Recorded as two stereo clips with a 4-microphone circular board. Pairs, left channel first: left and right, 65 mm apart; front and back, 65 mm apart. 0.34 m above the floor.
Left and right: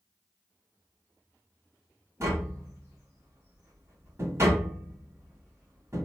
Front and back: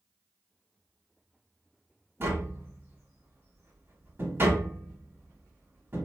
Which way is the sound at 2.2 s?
130° right.